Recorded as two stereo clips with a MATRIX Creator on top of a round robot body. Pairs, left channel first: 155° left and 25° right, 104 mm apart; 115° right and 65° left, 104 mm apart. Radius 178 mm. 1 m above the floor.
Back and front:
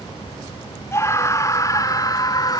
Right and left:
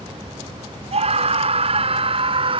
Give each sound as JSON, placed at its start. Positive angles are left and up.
{"t": 0.9, "sound": "a scream", "azimuth_deg": 90}